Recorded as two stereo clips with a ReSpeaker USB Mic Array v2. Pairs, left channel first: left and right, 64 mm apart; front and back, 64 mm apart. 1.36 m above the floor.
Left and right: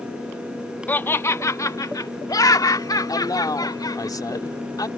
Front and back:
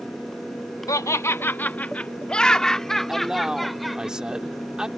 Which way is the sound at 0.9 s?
30° left.